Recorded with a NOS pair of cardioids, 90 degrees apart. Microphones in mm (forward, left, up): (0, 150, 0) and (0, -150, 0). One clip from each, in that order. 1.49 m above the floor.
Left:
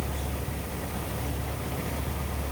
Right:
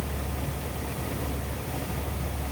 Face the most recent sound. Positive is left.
No sound to turn to.